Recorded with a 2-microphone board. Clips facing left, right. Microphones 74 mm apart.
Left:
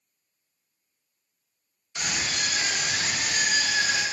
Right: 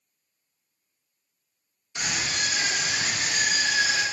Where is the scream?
20° right (ahead or behind), 1.3 m.